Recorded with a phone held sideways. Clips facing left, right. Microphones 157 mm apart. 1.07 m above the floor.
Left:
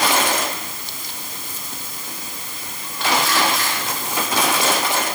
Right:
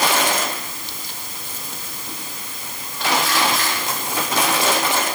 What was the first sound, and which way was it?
Only background noise.